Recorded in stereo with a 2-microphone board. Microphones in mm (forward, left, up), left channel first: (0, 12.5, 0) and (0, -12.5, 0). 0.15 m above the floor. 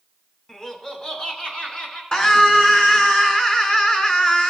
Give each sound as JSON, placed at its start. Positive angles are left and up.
{"t": 0.5, "sound": "laughter", "side_deg": 25, "distance_m": 1.7}
{"t": 2.1, "sound": "a scream", "side_deg": 35, "distance_m": 1.7}